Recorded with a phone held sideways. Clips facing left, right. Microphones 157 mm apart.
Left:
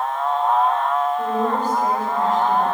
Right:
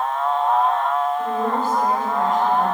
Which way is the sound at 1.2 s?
25° left (ahead or behind).